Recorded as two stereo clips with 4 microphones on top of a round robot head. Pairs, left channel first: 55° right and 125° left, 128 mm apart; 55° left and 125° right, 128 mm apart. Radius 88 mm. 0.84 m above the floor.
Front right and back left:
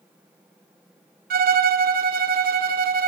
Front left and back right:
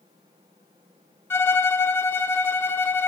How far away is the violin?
About 0.9 m.